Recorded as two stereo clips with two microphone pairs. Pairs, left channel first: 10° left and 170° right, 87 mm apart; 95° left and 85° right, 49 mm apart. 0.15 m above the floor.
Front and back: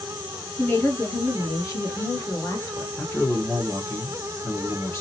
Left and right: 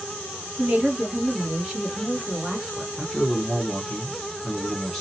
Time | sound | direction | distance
0.6 | a woman speaking | 30° right | 1.4 m
3.0 | a man speaking | 20° left | 1.2 m